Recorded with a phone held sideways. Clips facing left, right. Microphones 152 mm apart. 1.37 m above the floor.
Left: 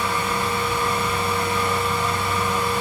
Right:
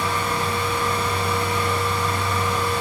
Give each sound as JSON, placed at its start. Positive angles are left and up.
{"t": 0.0, "sound": "a fan", "side_deg": 20, "distance_m": 0.9}